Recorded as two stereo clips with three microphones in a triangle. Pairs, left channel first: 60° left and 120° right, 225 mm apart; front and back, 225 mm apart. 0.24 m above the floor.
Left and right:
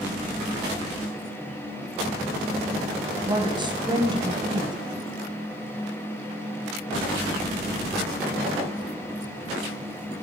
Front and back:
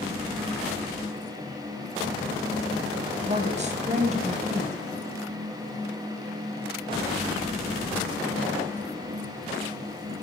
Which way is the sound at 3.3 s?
165° right.